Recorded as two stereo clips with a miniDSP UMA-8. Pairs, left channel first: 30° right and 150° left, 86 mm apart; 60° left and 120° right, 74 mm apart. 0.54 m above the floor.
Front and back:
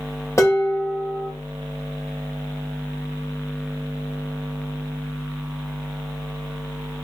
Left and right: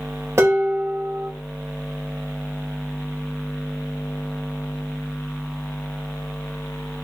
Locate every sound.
0.4 s dishes clattering: 80° right, 0.9 m